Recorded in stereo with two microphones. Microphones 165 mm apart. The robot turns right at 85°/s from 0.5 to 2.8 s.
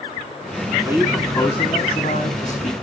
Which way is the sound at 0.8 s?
20° right.